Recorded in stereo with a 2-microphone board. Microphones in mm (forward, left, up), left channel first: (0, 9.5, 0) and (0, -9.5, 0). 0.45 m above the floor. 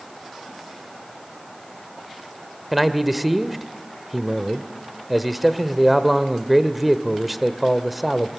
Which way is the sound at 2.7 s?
10° right (ahead or behind).